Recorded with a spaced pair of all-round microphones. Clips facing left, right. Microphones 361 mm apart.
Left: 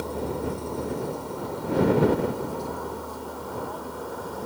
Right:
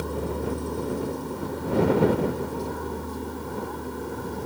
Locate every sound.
0.0 s a vehicle: 25° right (ahead or behind); by 4.5 s 30° right (ahead or behind)